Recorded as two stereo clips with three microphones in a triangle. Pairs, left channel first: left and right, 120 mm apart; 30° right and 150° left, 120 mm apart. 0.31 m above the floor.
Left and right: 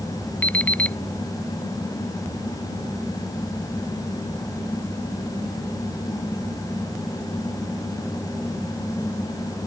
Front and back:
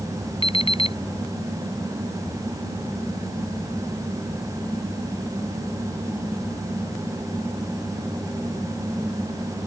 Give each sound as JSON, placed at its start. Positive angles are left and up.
{"t": 0.4, "sound": "an alarm clock", "azimuth_deg": 10}